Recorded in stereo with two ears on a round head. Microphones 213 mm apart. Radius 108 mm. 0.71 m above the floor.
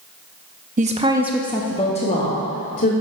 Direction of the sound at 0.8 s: 35° right (ahead or behind).